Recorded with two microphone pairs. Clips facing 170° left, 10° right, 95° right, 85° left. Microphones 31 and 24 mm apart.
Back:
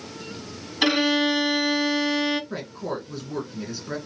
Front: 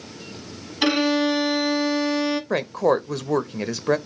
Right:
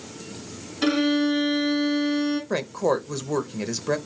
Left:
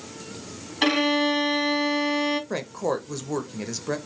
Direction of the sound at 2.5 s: 25° right.